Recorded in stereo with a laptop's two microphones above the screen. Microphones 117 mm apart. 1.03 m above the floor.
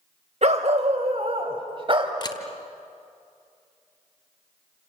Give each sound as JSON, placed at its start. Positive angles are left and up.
{"t": 0.4, "sound": "a dog barking", "side_deg": -60, "distance_m": 2.0}
{"t": 2.2, "sound": "a camera shutter", "side_deg": 35, "distance_m": 1.6}